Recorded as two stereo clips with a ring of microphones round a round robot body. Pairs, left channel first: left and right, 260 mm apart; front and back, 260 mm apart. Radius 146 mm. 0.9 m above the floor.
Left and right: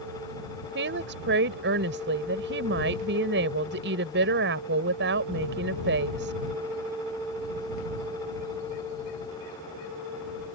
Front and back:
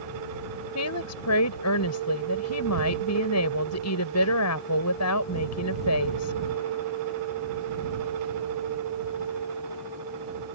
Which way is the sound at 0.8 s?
35° right.